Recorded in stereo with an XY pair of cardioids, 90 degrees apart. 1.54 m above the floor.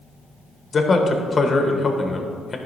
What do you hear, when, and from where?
0.7 s a man speaking: 40° left, 1.2 m